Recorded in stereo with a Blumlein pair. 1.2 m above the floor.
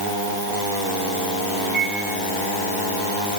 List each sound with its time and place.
1.6 s a microwave: 20° right, 7.5 m